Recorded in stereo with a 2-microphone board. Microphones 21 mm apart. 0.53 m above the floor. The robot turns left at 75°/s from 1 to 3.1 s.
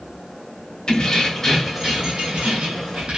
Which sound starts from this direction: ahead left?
Keys jangling, at 0.9 s.